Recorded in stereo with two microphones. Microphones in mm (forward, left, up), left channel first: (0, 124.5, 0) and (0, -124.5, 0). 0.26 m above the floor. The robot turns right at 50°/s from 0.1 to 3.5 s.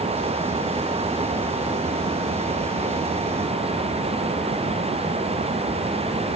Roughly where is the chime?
No chime in this recording.